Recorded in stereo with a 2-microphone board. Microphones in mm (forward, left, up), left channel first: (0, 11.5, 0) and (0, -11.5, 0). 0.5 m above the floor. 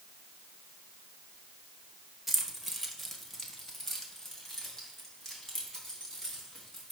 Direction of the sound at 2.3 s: 5° right (ahead or behind).